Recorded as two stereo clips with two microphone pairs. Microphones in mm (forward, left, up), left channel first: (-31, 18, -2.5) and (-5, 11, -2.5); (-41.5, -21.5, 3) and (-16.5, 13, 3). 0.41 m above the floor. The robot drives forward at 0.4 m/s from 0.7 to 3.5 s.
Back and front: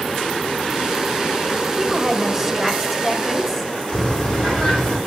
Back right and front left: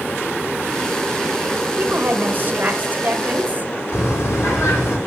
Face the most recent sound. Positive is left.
turn(degrees=-120)